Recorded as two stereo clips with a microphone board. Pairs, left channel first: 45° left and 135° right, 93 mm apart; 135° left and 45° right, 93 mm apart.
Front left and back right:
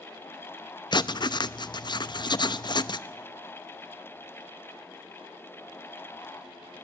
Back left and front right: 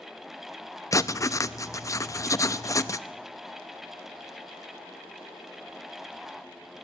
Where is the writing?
80° left, 0.6 m.